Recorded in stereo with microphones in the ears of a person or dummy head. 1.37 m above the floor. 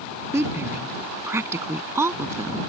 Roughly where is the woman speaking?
Centre.